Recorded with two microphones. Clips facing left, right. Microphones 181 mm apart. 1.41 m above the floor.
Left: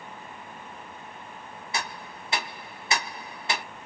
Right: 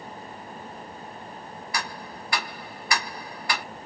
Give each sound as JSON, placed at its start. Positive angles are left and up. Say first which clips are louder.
{"t": 1.7, "sound": "ticking", "louder": "even", "side_deg": 20, "distance_m": 0.5}